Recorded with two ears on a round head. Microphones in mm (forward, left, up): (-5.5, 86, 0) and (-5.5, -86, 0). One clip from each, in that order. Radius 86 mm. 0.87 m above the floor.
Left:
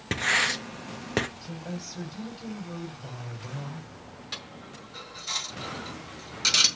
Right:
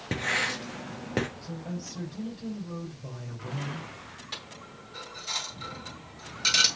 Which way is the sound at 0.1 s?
40° left (ahead or behind).